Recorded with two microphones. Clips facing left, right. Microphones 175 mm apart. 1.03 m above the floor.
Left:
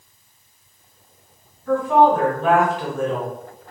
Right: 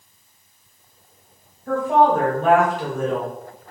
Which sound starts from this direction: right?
A woman speaking, at 1.7 s.